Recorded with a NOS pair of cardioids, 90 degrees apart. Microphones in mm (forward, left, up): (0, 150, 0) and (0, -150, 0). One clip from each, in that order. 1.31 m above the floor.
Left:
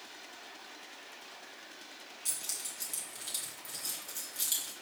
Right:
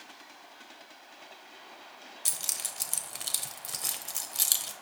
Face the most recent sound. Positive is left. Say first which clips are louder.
# right 6 dB
turn(degrees=-50)